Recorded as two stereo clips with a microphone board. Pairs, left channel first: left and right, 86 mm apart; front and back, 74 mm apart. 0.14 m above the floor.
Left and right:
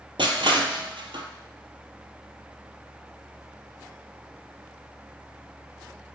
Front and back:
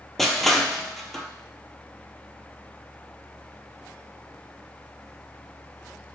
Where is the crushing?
85° right, 0.6 m.